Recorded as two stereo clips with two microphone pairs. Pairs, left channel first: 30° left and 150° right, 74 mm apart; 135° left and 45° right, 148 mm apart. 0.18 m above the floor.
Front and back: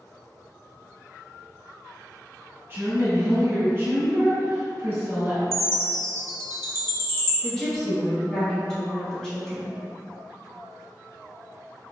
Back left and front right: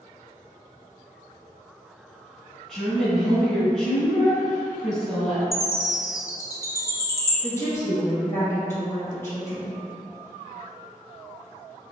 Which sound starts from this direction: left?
A woman speaking, at 7.4 s.